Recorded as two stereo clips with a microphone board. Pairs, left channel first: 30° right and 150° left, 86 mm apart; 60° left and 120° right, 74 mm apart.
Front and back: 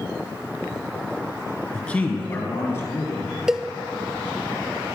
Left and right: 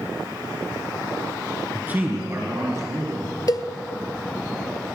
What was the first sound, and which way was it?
A man speaking, 85° right.